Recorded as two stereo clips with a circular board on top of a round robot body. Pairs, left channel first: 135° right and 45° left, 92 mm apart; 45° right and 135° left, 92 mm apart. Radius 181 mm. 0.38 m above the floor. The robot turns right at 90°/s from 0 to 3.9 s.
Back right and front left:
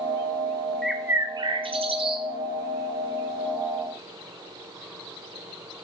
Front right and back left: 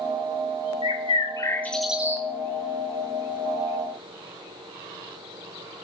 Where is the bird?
45° right, 1.0 m; by 2.2 s 80° left, 1.0 m.